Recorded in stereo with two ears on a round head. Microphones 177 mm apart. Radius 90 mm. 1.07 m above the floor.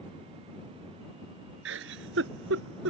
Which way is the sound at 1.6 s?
75° right (ahead or behind).